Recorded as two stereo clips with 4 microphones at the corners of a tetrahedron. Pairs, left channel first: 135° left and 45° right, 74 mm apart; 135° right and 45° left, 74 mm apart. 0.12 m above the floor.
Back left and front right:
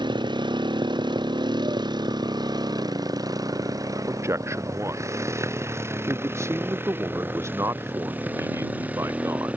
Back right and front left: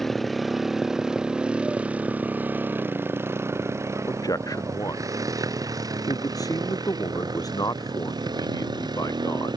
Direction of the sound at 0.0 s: 45° right.